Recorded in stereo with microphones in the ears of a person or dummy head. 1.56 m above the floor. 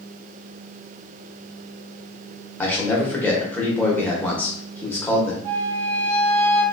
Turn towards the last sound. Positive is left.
turn(degrees=10)  # may be behind; listen again after turning